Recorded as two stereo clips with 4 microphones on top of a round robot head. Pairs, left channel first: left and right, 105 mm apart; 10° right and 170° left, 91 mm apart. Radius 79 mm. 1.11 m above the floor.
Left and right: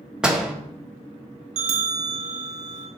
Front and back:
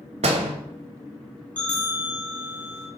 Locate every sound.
0.2 s a door slam: 170° right, 1.5 m
1.6 s a bell: 85° right, 1.3 m